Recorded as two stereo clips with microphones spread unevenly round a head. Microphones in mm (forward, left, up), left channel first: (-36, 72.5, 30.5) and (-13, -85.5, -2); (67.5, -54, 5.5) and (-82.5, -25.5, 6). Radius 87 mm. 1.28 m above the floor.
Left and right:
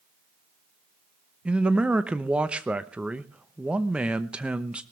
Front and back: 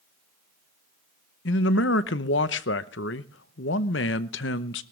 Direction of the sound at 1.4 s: 5° left.